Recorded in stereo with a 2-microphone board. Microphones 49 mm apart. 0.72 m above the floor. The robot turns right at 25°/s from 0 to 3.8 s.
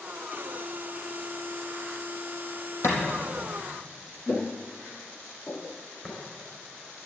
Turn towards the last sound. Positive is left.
turn(degrees=45)  # may be behind; listen again after turning